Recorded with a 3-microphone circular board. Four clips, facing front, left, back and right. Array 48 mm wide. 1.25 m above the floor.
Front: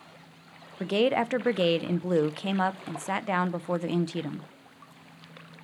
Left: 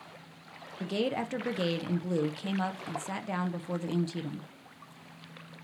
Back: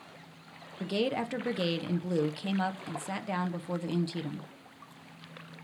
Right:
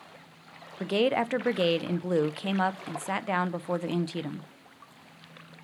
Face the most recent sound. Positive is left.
turn(degrees=-35)